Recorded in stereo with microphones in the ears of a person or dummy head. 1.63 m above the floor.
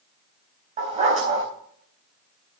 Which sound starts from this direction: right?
A dog barking, at 0.8 s.